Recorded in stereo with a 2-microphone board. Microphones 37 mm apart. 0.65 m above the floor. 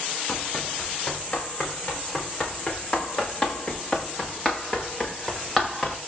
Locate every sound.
0.3 s running footsteps: 40° left (ahead or behind), 7.5 m; by 6.0 s 5° left (ahead or behind), 6 m